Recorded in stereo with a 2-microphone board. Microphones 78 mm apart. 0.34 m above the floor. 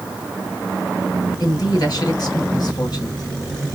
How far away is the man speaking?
About 2.5 m.